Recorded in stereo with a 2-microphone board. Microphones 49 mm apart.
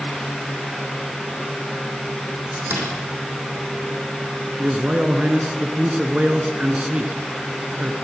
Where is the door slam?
50° right (ahead or behind), 6 m.